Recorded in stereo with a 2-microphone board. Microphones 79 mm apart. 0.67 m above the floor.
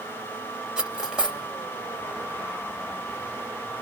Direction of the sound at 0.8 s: 10° right (ahead or behind).